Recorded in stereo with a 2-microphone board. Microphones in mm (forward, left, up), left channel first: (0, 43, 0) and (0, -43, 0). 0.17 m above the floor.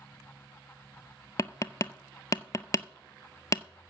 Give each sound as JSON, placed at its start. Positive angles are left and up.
{"t": 1.4, "sound": "tapping", "side_deg": 40, "distance_m": 0.6}